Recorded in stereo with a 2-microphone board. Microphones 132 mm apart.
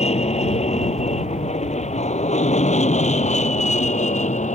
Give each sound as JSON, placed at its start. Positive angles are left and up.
{"t": 0.0, "sound": "an aircraft", "side_deg": 55}